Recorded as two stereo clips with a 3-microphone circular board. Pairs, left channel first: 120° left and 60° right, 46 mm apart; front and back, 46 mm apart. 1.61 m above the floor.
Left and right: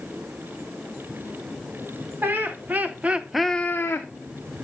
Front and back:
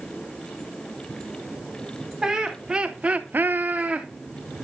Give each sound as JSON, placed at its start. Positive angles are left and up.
{"t": 2.2, "sound": "laughter", "azimuth_deg": -105, "distance_m": 2.0}